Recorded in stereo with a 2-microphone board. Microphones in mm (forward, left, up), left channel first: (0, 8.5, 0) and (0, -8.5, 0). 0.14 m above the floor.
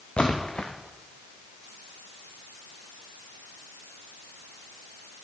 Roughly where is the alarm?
No alarm in this recording.